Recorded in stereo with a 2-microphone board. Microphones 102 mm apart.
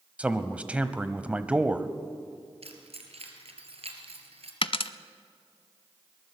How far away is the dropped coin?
About 0.7 m.